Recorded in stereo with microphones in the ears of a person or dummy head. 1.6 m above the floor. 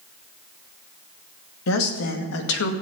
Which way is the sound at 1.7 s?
85° left.